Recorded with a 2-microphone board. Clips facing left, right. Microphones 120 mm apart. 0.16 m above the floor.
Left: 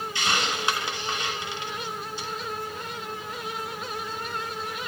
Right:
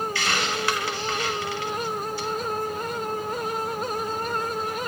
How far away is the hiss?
About 1.1 m.